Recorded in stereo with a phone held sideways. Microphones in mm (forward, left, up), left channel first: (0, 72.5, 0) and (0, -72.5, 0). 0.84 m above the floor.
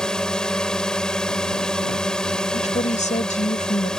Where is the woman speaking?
55° left (ahead or behind).